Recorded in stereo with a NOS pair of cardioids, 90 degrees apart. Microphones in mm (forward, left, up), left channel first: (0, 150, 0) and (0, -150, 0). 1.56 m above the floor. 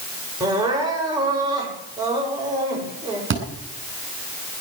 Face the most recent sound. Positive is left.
turn(degrees=-40)